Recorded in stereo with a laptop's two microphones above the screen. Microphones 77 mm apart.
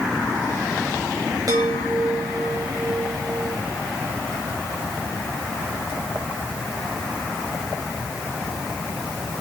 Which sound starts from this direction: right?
A chime, at 1.5 s.